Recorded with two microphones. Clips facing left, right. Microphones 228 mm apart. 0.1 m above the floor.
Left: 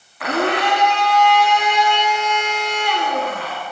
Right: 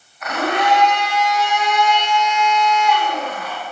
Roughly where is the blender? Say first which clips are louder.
Left 2 dB; left.